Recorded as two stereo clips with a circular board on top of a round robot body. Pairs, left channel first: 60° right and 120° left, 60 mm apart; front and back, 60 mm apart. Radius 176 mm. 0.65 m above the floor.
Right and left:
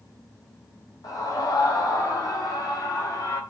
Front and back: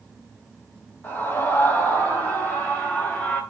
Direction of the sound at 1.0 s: 60° right.